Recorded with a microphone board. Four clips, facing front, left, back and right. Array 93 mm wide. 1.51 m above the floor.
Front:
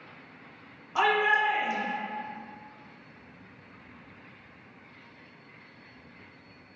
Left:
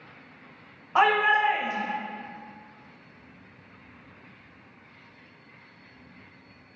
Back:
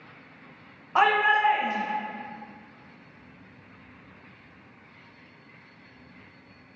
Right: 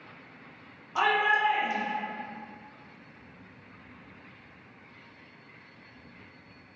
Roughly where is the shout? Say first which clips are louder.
Left 4 dB, back 3 dB; behind left.